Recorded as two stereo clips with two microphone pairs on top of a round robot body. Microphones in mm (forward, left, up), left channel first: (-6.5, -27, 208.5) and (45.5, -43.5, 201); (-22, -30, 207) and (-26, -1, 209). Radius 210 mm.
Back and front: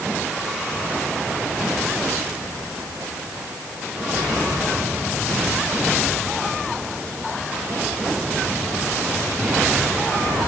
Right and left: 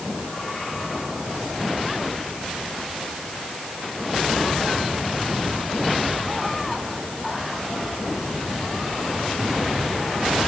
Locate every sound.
Only background noise.